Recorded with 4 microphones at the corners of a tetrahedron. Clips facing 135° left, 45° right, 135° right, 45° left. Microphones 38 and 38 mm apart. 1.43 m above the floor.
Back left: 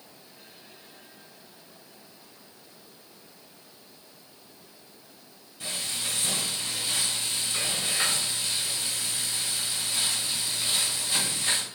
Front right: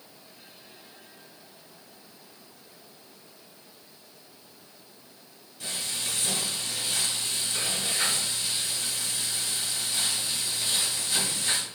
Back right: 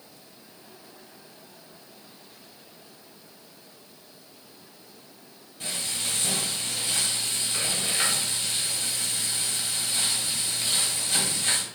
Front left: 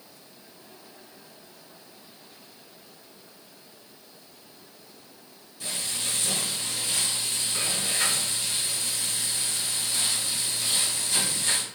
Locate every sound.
5.6 s frying: 170° right, 1.8 m